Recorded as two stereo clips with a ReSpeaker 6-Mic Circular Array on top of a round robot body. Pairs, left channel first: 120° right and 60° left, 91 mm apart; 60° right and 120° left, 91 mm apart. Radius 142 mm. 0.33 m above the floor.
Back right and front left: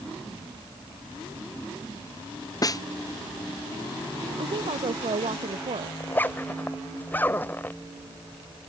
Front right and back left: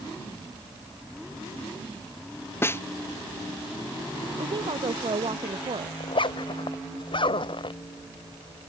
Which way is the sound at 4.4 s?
85° left.